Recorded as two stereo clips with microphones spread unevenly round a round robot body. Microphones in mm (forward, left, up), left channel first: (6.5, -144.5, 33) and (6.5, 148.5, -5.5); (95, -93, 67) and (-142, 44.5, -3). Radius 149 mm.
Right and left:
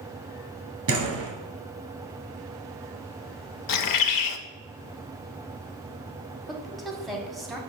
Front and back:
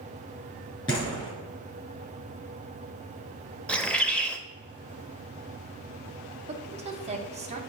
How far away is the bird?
About 0.6 m.